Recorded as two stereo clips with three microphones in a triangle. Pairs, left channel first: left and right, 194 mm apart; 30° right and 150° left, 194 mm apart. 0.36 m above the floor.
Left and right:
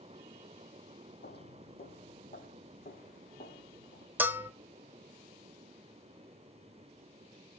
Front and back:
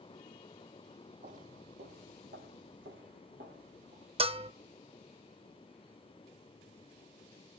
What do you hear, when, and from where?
1.2 s footsteps: 105° left, 0.8 m; by 4.1 s 135° left, 3.5 m
4.2 s a bell: 165° right, 0.5 m